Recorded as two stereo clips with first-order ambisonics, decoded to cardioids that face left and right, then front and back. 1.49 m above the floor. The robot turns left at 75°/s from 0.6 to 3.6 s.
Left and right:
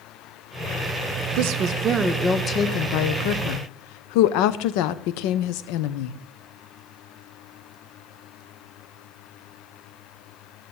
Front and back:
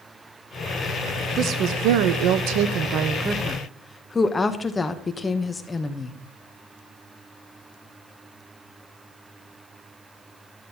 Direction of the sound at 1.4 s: 115° right.